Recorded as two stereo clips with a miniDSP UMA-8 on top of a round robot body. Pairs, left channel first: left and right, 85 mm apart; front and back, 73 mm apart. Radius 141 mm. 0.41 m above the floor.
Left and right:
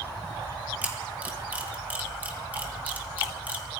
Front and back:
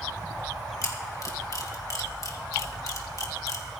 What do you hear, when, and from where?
0.8 s a camera shutter: 20° right, 2.5 m